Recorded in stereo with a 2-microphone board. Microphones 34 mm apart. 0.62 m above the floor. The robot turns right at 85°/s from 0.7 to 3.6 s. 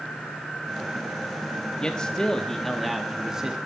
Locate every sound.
1.8 s a man speaking: 25° left (ahead or behind), 1.1 m; by 3.6 s 20° right (ahead or behind), 1.1 m